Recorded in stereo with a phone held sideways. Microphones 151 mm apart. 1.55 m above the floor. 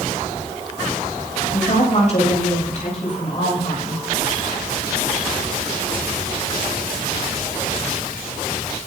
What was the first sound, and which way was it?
A woman speaking, 50° left (ahead or behind).